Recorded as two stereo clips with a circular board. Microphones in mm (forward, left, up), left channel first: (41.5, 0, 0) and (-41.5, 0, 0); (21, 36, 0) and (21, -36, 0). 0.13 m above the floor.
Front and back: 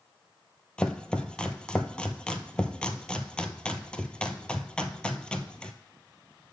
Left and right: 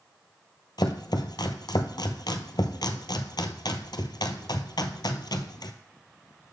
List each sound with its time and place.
0.8 s chopping: 80° left, 0.6 m